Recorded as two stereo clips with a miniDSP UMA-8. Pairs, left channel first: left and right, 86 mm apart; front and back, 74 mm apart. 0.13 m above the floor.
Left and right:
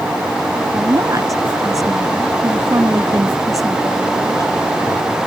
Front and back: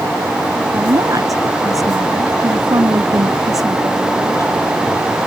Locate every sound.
0.7 s a woman speaking: 140° right